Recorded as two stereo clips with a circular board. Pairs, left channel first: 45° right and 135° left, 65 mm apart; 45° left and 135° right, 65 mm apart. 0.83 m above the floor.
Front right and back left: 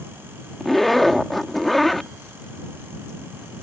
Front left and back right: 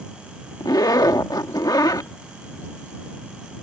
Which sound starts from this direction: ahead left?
A zipper, at 0.6 s.